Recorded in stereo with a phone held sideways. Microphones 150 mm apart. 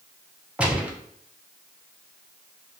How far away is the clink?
No clink in this recording.